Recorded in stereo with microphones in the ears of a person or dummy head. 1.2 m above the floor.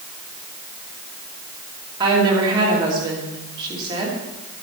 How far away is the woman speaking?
About 2.5 m.